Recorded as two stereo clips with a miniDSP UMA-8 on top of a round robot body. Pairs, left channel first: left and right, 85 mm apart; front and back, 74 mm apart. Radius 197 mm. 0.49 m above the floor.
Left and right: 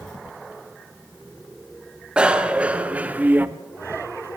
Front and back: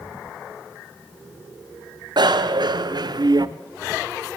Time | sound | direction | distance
2.2 | a bicycle bell | 170° right | 2 m